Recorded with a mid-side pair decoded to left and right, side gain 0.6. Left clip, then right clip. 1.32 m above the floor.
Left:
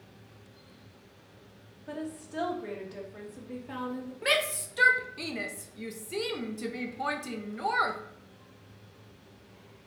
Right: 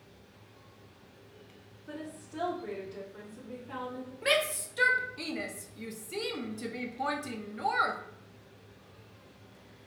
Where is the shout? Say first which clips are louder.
Left 1 dB; 10° left, 0.6 m.